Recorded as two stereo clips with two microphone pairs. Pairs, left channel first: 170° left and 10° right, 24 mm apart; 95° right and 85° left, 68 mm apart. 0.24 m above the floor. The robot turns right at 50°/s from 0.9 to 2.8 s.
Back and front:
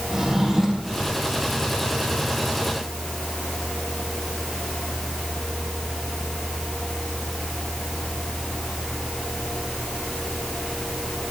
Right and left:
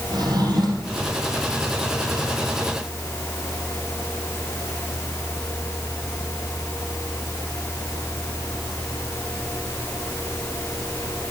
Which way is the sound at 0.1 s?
70° left.